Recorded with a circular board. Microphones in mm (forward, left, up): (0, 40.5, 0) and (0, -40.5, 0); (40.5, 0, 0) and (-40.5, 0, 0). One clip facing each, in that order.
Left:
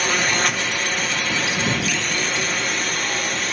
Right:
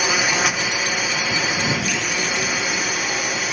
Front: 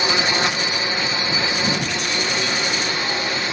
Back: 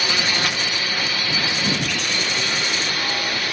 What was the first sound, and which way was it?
A drone, 15° right.